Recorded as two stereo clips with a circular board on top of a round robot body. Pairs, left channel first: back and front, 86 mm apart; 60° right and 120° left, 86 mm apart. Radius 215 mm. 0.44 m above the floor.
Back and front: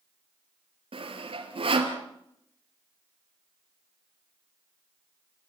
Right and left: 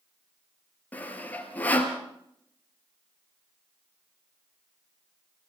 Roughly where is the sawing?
Ahead.